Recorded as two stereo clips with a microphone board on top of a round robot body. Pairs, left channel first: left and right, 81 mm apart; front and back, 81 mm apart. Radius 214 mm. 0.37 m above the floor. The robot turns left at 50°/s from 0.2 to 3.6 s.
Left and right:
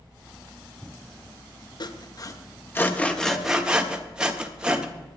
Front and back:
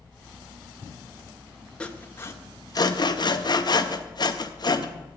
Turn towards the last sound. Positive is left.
turn(degrees=-15)